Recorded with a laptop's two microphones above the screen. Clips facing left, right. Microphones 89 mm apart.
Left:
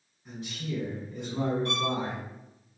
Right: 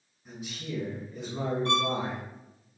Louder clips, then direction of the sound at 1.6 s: Right 3 dB; 35° right (ahead or behind).